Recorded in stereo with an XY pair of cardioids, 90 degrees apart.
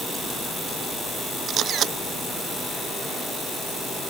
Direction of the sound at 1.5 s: 70° right.